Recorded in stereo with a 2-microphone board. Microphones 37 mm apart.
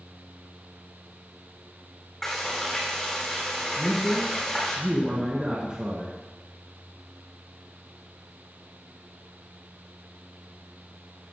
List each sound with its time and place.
2.2 s frying: 10° left (ahead or behind), 4.5 m
3.8 s a man speaking: 30° right (ahead or behind), 1.7 m